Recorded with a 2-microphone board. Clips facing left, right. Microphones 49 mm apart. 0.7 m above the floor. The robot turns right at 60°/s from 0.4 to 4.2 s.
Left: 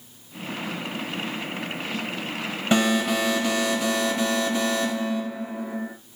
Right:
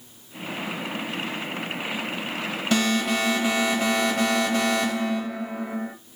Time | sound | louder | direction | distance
2.7 | an alarm | left 2 dB | 160° left | 2 m